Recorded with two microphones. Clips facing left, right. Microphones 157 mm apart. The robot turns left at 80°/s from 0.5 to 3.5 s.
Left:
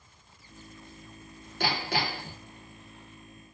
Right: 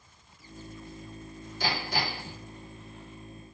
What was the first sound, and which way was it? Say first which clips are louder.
Hammering: left 2 dB; 110° left.